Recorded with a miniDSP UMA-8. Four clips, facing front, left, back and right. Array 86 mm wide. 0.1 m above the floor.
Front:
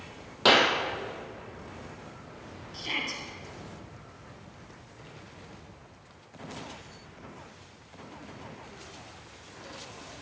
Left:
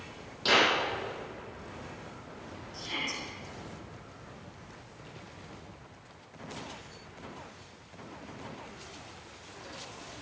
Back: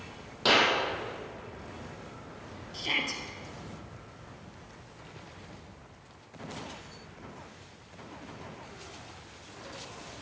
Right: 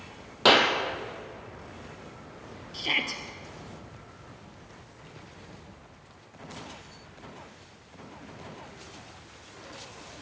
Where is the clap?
60° right, 2.5 m.